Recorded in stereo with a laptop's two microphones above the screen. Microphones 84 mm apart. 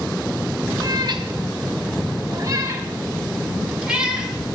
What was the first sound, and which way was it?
A cat meowing, 55° right (ahead or behind).